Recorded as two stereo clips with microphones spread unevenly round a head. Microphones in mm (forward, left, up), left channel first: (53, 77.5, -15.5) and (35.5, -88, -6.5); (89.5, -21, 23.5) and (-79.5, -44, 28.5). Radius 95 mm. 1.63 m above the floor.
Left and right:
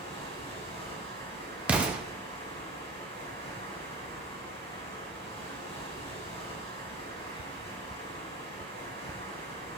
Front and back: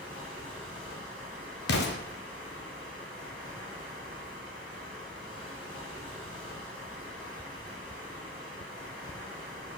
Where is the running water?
30° left, 4 m.